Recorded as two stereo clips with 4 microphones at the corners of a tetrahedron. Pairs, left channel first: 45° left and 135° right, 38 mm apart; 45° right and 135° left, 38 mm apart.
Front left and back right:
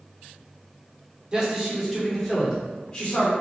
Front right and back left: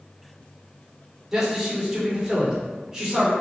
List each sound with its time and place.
1.3 s a man speaking: 165° right, 1.3 m; by 3.3 s 75° left, 1.5 m